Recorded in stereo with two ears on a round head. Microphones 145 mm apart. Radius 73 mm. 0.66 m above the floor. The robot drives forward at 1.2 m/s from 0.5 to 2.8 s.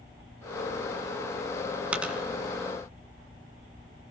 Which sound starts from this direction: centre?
A dropped coin, at 1.9 s.